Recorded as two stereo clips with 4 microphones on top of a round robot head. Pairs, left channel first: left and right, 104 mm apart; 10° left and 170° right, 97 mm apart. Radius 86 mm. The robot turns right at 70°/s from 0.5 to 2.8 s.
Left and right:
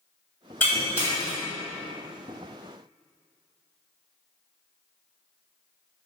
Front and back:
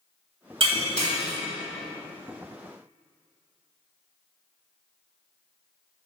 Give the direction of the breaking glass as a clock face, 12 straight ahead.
6 o'clock.